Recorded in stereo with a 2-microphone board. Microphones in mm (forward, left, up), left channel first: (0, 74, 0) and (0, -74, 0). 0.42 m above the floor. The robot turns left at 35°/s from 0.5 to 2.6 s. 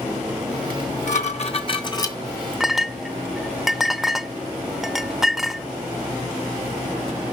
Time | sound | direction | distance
0.7 | dishes clattering | 75° left | 2 m
2.6 | a clink | centre (ahead or behind) | 0.5 m